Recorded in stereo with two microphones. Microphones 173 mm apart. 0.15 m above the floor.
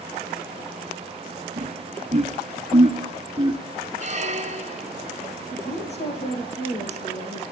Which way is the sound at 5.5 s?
40° left (ahead or behind).